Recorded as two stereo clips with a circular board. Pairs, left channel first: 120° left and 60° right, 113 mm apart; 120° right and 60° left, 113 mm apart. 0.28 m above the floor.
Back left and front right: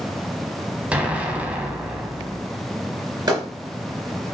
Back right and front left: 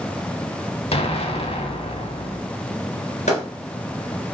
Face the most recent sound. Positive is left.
turn(degrees=-115)